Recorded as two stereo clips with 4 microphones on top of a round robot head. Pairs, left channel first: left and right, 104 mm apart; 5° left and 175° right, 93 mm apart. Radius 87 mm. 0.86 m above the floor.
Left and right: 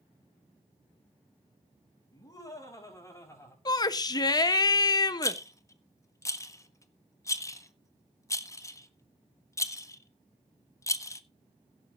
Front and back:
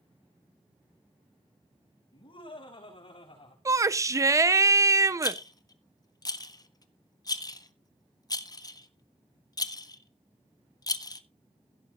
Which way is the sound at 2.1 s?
40° left.